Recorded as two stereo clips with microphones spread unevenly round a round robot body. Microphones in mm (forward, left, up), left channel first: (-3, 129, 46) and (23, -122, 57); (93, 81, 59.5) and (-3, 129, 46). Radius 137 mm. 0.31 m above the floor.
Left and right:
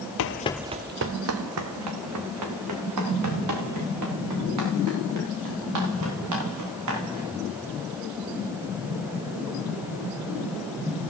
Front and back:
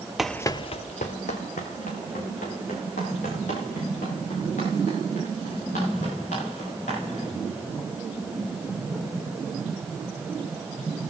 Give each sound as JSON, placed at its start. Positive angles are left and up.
{"t": 0.2, "sound": "running footsteps", "azimuth_deg": 65, "distance_m": 0.6}